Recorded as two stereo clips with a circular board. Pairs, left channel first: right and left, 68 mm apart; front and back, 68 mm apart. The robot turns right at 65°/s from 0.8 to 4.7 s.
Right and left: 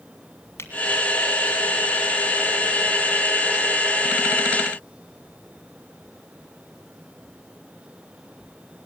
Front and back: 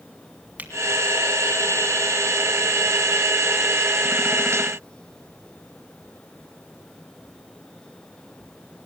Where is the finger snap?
120° right, 1.7 m.